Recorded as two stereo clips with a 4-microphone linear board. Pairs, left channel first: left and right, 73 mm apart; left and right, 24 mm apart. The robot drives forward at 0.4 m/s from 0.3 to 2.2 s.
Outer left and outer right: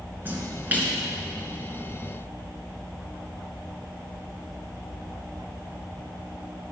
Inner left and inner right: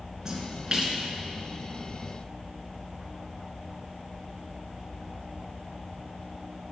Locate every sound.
0.2 s a splash: 25° right (ahead or behind), 2.5 m